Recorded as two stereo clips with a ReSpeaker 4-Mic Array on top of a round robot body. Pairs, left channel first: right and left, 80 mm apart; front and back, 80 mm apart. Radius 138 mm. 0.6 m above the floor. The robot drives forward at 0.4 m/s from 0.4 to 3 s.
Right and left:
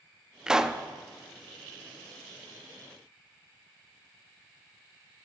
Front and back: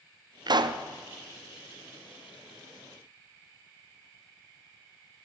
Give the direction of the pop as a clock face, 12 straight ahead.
6 o'clock.